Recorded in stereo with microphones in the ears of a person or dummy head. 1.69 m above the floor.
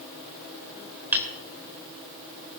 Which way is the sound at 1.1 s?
5° right (ahead or behind).